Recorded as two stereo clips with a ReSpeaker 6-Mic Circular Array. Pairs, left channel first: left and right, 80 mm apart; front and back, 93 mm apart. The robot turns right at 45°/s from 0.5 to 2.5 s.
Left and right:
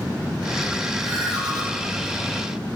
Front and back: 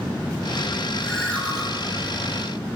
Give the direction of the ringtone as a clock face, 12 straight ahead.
3 o'clock.